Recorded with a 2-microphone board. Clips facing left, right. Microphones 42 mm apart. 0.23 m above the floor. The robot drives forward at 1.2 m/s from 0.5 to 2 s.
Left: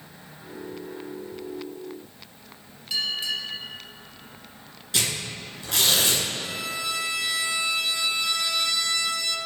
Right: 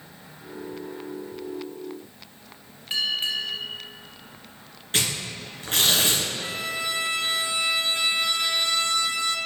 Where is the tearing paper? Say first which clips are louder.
Right 1 dB; 40° right (ahead or behind), 2.5 m.